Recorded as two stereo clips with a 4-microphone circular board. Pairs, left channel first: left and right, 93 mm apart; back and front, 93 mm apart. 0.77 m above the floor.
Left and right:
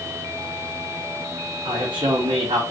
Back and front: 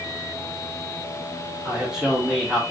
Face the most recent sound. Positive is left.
turn(degrees=-80)